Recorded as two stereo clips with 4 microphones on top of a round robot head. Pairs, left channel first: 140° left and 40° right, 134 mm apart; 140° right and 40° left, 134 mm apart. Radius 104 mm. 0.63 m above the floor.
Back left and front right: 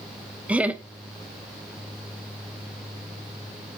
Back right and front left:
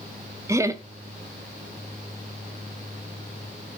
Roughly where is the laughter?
Ahead left.